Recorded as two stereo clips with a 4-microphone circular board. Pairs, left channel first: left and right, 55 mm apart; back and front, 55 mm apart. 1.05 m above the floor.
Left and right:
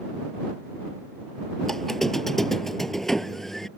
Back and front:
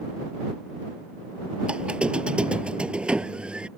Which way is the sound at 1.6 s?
15° left.